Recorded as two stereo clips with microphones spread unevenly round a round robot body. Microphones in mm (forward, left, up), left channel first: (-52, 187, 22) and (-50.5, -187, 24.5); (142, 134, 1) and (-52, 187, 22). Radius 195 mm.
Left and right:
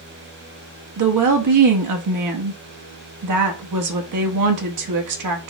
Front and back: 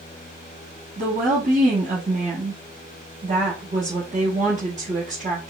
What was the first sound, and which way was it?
A woman speaking, 125° right.